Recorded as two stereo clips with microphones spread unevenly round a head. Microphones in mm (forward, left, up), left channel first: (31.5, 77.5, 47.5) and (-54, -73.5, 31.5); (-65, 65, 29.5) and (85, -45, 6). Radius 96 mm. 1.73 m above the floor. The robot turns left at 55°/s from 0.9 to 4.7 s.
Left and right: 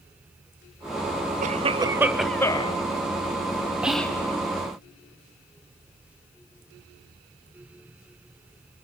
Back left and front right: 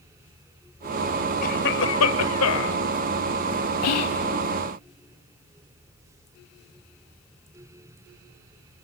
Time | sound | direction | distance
1.4 | a cough | 165° right | 1.1 m
3.8 | whispering | 155° left | 0.6 m